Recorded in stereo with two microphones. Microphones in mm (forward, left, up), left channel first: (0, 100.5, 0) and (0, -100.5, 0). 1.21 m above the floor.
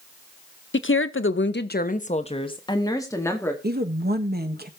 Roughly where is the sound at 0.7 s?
Left.